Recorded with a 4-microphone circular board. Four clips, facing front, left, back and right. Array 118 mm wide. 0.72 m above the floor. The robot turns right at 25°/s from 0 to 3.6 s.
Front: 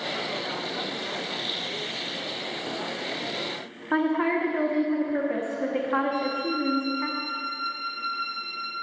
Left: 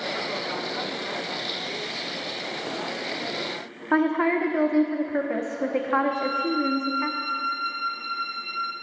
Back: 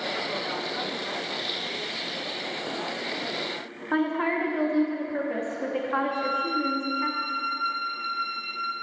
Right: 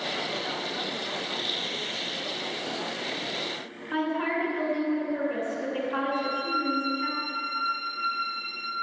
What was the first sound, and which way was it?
A woman speaking, 85° left.